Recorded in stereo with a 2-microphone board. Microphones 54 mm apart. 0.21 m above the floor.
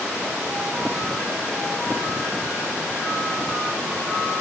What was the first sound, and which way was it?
Only background noise.